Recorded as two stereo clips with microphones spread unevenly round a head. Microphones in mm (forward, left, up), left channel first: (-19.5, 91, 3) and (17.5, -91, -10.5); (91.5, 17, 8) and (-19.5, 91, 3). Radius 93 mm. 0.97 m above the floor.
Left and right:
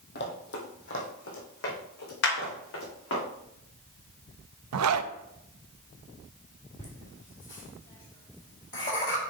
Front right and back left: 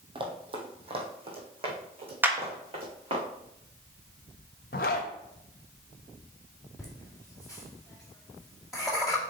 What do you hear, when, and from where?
0.1 s running footsteps: 105° left, 1.7 m
2.2 s a clap: 70° left, 1.3 m
4.7 s a zipper: 80° right, 0.5 m
6.8 s laughter: 55° left, 2.0 m